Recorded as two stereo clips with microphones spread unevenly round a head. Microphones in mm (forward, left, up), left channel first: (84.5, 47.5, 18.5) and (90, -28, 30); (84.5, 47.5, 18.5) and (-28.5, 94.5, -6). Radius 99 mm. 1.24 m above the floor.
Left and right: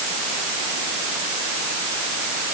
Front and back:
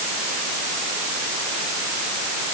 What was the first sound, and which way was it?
Only background noise.